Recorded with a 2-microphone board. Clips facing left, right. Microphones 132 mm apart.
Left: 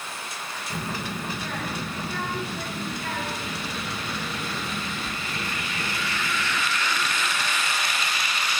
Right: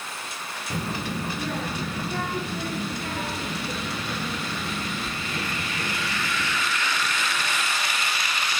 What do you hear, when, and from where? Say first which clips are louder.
0.7 s a child speaking: right 3 dB; 30° right (ahead or behind), 1.3 m